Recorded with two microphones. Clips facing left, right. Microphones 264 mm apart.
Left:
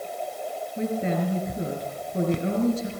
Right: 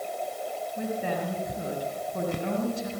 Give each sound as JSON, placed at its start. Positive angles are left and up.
{"t": 0.8, "sound": "a woman speaking", "side_deg": 20, "distance_m": 5.0}